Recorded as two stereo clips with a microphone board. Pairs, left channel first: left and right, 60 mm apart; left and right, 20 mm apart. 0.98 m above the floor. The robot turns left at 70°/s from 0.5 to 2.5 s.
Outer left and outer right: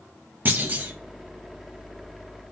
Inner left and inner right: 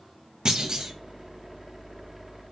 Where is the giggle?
I don't hear a giggle.